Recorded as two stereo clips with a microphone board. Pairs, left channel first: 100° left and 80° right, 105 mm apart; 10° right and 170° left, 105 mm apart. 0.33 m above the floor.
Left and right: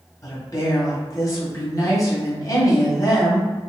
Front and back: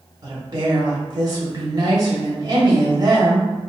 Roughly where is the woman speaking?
Behind left.